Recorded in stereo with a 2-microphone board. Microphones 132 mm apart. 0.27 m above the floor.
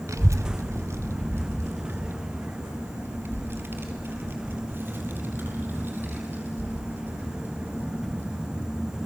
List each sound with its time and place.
0.1 s a child speaking: 20° right (ahead or behind), 0.9 m; by 8.9 s 15° right (ahead or behind), 8.5 m